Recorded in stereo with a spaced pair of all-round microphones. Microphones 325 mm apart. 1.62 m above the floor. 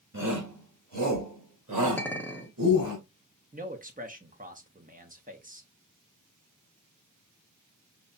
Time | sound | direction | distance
0.1 | a shout | 50° right (ahead or behind) | 3 m
2.0 | a clink | 5° left (ahead or behind) | 0.9 m
3.5 | a man speaking | 25° right (ahead or behind) | 0.9 m